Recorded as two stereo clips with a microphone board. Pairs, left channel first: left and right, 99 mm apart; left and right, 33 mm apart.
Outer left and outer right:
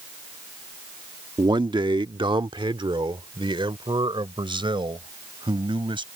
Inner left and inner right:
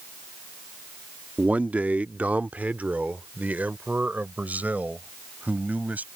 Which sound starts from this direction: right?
A man speaking, at 1.4 s.